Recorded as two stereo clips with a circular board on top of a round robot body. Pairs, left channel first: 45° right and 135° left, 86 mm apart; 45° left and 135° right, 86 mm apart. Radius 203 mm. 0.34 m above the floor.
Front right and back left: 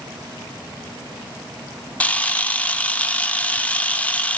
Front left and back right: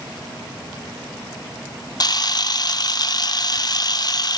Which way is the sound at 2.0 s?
25° left.